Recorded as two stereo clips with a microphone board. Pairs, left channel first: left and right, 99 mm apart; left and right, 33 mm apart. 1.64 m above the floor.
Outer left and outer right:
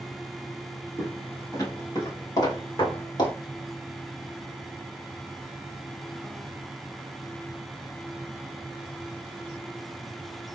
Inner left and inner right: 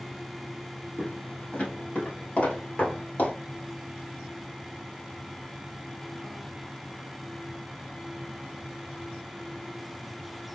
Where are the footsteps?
30° left (ahead or behind), 2 m; by 3.3 s 50° left (ahead or behind), 2.5 m.